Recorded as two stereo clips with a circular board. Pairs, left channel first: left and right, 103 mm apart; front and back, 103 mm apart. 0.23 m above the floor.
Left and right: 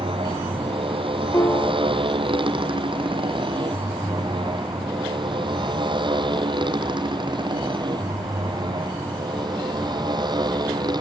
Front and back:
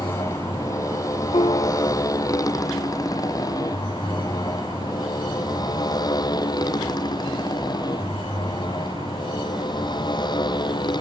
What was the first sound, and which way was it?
A motorcycle, 60° right.